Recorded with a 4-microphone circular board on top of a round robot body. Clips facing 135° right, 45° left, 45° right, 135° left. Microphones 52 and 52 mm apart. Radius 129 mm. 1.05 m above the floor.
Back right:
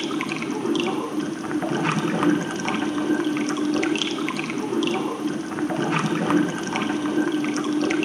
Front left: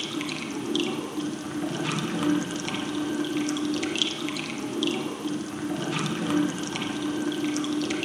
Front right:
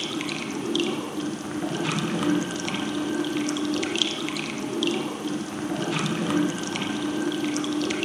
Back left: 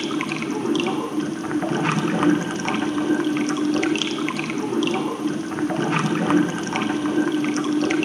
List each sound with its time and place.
0.0 s running water: straight behind, 0.8 m